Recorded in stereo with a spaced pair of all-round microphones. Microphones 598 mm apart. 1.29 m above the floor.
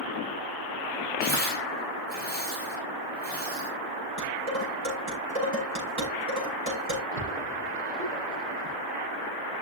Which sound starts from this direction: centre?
Tearing paper, at 1.2 s.